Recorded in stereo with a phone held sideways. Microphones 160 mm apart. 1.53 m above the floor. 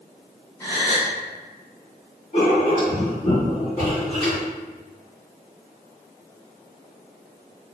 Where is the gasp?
25° left (ahead or behind), 1.0 m.